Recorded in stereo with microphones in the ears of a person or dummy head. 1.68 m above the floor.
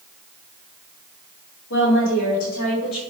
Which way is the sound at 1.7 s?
55° left (ahead or behind).